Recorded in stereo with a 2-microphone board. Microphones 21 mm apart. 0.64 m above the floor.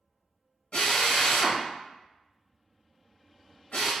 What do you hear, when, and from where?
0.7 s a drill: 75° left (ahead or behind), 1.2 m